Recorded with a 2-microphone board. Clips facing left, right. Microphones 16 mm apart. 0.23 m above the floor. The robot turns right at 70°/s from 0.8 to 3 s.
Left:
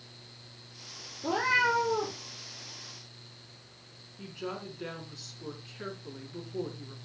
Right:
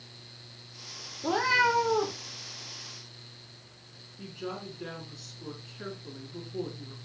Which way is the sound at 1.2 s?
160° right.